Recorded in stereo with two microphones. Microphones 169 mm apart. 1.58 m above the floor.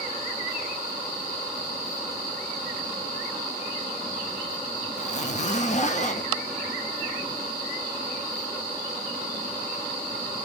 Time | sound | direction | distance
5.0 | a zipper | 45° left (ahead or behind) | 0.7 m